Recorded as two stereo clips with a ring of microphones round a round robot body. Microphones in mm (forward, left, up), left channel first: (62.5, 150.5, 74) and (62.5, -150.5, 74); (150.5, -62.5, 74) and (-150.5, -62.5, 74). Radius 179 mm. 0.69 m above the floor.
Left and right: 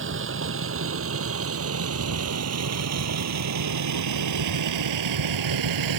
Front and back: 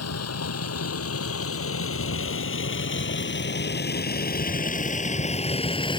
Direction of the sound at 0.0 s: 40° right.